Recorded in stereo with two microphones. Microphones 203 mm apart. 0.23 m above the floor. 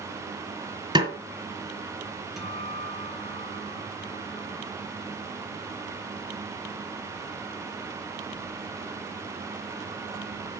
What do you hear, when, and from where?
0.9 s a snare drum: 25° right (ahead or behind), 2 m
2.4 s a guitar: centre (ahead or behind), 1.7 m